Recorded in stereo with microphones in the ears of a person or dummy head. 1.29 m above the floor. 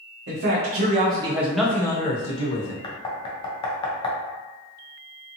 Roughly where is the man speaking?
Right.